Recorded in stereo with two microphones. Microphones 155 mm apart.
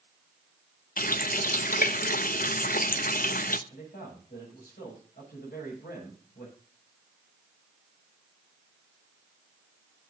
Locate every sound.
1.0 s a running tap: 65° left (ahead or behind), 0.7 m
3.7 s a man speaking: 85° left, 6.5 m